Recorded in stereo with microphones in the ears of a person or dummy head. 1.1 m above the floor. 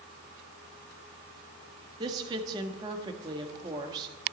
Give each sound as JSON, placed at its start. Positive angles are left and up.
{"t": 2.0, "sound": "a woman speaking", "side_deg": -25, "distance_m": 1.6}